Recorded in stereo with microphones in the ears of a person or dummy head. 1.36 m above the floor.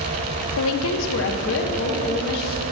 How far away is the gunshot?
No gunshot in this recording.